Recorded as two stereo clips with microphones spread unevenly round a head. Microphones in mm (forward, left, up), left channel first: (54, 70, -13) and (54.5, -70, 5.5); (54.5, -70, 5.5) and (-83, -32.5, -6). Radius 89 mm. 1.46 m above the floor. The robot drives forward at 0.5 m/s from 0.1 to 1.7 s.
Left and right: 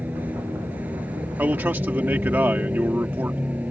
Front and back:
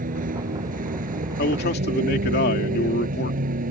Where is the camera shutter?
No camera shutter in this recording.